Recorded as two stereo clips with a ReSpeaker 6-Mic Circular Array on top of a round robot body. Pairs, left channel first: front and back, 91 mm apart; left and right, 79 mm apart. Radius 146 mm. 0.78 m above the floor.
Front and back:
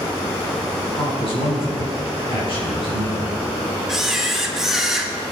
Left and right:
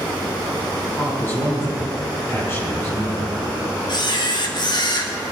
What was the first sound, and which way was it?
A man speaking, 25° left.